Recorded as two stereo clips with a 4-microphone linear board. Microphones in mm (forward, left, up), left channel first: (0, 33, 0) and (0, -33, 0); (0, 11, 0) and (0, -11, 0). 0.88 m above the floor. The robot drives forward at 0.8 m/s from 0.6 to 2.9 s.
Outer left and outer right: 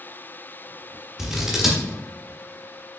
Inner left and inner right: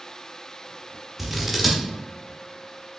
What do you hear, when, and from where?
1.2 s scissors: 10° right (ahead or behind), 1.3 m; by 1.8 s 5° right (ahead or behind), 1.8 m